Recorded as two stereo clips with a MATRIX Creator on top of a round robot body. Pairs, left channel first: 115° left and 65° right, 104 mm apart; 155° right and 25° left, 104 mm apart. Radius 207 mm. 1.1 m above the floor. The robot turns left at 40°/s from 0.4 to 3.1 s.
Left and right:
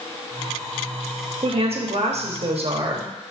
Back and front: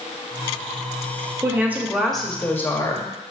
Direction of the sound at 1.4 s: 40° right.